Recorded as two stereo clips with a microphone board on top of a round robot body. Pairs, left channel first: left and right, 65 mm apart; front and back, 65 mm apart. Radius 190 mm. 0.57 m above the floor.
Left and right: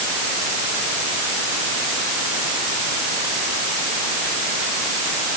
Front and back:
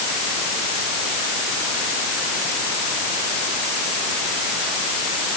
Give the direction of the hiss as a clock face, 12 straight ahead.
No hiss in this recording.